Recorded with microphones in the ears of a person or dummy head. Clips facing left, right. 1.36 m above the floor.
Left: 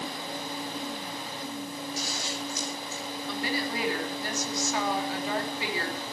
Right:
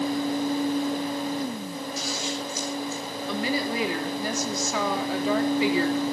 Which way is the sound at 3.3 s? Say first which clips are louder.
Right 5 dB; 75° right (ahead or behind).